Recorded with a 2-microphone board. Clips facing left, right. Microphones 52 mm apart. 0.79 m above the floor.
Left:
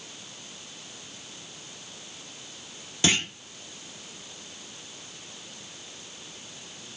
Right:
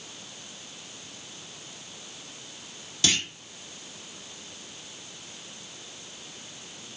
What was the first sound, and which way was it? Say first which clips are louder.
A clunk: left 3 dB; 25° left (ahead or behind).